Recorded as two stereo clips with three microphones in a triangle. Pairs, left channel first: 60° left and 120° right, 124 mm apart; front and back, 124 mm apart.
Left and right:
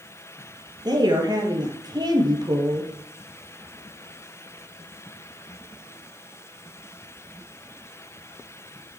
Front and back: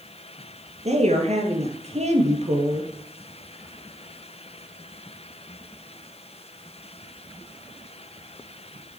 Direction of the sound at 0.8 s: 170° right.